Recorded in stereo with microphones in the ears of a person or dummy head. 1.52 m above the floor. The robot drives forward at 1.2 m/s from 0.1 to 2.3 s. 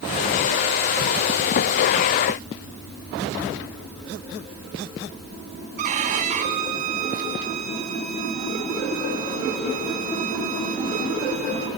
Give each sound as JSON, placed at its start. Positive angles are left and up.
{"t": 5.8, "sound": "a violin", "side_deg": -40, "distance_m": 2.5}